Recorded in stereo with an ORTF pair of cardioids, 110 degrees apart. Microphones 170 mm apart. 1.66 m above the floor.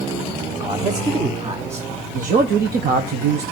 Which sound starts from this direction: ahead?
A man speaking, at 0.6 s.